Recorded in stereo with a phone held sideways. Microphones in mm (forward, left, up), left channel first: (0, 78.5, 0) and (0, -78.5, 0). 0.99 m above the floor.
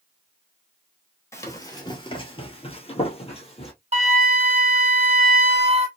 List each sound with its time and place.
1.3 s running footsteps: 15° left (ahead or behind), 1.2 m; by 3.7 s 35° left (ahead or behind), 1.6 m
3.9 s a flute: 40° right (ahead or behind), 0.9 m